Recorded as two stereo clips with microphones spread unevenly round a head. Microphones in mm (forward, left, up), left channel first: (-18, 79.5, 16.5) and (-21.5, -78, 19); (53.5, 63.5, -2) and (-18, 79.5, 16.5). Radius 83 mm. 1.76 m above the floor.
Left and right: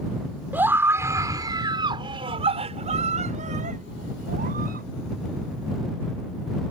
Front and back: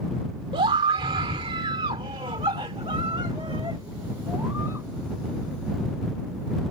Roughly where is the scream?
Behind.